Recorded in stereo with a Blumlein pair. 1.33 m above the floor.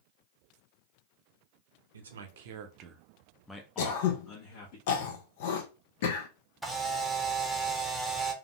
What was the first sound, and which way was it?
A man speaking, 70° right.